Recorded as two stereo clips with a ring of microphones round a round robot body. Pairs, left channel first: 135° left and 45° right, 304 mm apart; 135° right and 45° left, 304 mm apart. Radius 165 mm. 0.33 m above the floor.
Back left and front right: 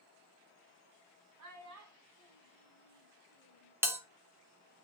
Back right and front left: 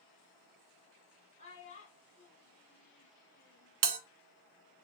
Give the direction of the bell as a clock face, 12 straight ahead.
11 o'clock.